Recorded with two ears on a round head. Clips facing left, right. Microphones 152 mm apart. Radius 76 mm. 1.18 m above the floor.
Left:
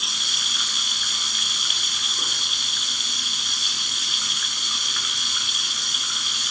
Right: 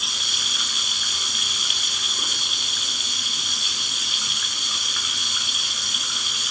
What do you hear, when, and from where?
0.0 s running water: centre (ahead or behind), 1.2 m